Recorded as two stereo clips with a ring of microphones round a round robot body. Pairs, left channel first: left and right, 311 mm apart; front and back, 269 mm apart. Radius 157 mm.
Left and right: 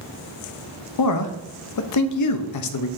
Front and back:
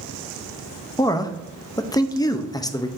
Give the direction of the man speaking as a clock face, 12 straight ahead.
9 o'clock.